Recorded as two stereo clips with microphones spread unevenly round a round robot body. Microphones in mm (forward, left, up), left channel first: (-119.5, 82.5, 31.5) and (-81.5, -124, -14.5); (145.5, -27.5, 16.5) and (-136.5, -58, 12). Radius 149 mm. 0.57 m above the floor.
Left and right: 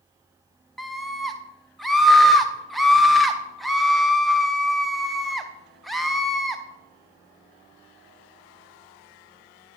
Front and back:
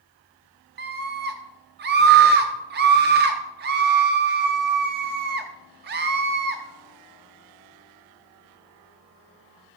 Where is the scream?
150° right, 0.7 m.